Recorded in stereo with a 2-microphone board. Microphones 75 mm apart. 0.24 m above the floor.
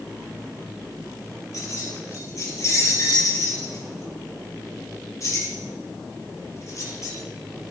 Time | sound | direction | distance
1.5 | keys jangling | 45° left (ahead or behind) | 4.5 m